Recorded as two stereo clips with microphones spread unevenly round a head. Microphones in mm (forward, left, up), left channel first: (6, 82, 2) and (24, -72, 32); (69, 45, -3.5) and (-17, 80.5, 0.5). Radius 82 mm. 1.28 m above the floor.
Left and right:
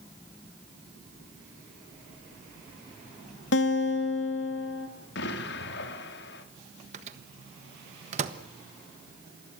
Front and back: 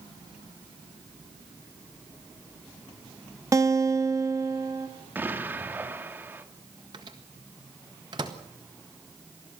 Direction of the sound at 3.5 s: 100° left.